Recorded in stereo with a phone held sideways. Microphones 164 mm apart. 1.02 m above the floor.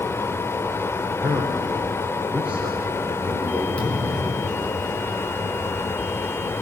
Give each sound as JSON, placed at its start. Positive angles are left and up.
{"t": 0.0, "sound": "a fan", "side_deg": 15, "distance_m": 0.9}
{"t": 1.1, "sound": "a man speaking", "side_deg": -10, "distance_m": 4.0}
{"t": 3.8, "sound": "a thud", "side_deg": 5, "distance_m": 5.5}